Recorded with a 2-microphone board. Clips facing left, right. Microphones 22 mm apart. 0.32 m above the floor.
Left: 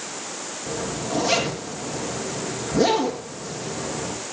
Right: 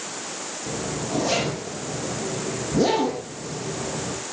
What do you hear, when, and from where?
0.7 s a zipper: 20° left (ahead or behind), 4.5 m